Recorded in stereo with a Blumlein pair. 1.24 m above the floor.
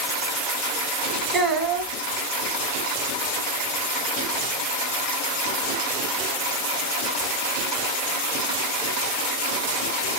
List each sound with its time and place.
1.3 s a child speaking: 20° right, 0.9 m